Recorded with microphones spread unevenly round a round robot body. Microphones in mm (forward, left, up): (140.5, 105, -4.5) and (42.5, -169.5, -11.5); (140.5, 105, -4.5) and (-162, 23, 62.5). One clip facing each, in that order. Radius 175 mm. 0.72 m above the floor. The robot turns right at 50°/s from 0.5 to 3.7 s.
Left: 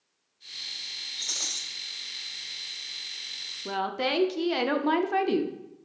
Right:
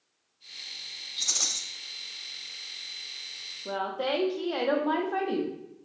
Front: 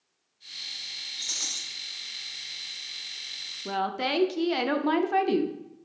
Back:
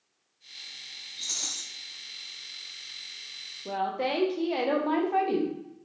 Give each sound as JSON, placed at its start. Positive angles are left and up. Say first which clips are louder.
{"t": 1.2, "sound": "a rattle", "louder": "right 2 dB, back 1 dB", "azimuth_deg": -60, "distance_m": 0.8}
{"t": 3.6, "sound": "a woman speaking", "louder": "left 1 dB, even", "azimuth_deg": 30, "distance_m": 0.5}